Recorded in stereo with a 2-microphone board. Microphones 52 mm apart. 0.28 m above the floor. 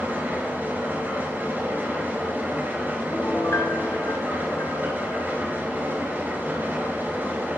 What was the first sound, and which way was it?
An engine running, 35° right (ahead or behind).